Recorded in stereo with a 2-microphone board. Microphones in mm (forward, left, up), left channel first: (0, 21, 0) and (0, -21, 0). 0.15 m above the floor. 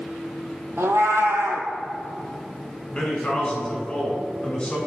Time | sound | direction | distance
0.8 | a cat meowing | 80° right | 0.6 m
2.9 | a man speaking | 25° left (ahead or behind) | 1.5 m